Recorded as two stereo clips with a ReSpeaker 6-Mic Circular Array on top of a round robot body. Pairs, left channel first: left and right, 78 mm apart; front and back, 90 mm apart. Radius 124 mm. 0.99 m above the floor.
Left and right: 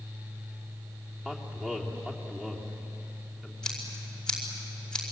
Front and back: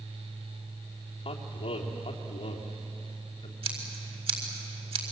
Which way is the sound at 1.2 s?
10° right.